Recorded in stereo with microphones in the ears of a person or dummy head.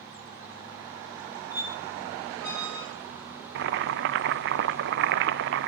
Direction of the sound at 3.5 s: 60° right (ahead or behind).